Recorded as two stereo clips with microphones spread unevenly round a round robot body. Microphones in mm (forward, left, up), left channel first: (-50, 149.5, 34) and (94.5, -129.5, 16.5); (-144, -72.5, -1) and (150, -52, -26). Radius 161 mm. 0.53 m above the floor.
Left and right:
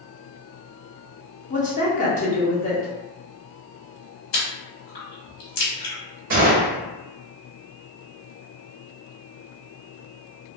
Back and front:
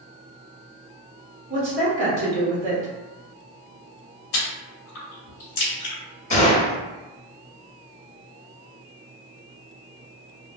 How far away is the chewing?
About 1.1 m.